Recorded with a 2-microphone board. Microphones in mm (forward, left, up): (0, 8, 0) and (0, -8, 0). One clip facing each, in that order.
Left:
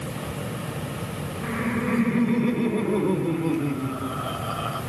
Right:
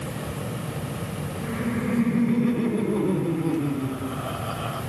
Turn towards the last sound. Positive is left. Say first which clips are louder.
# left 2 dB
turn(degrees=25)  # may be behind; listen again after turning